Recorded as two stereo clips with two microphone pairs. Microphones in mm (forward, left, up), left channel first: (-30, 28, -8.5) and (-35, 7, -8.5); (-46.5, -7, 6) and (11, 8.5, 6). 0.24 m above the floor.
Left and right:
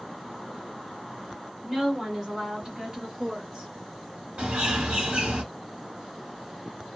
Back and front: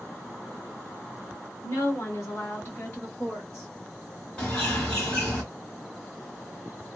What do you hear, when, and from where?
1.6 s a woman speaking: 175° left, 1.3 m; by 3.7 s 115° right, 1.4 m
4.4 s a bird: 95° right, 1.5 m